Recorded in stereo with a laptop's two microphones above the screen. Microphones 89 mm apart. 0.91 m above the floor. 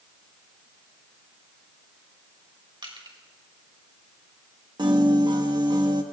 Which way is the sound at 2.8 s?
65° right (ahead or behind).